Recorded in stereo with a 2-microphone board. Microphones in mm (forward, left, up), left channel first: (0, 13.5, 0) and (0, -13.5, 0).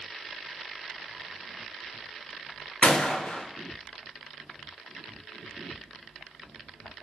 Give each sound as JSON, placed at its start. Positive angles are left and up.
{"t": 2.8, "sound": "a gunshot", "side_deg": 65, "distance_m": 0.8}